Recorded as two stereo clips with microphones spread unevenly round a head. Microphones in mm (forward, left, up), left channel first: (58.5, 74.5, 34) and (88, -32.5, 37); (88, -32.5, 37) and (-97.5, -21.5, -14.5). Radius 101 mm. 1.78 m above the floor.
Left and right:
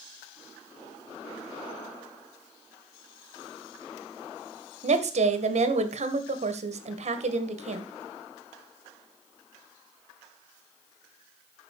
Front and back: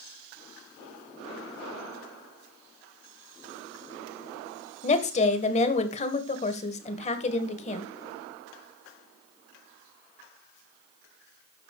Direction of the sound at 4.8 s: 55° right.